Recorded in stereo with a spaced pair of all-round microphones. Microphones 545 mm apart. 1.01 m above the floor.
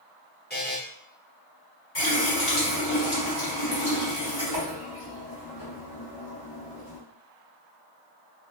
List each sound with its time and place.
0.5 s a buzzer: 20° left (ahead or behind), 0.8 m
1.9 s a running tap: 45° left (ahead or behind), 1.6 m